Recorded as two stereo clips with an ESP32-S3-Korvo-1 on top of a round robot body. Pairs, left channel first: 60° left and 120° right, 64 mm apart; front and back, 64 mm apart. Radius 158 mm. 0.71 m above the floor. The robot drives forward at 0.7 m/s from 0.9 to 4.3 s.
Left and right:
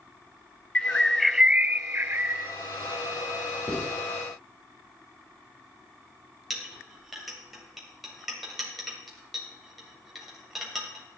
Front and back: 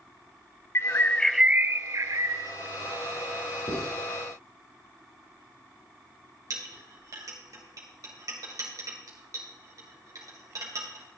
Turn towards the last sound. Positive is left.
turn(degrees=150)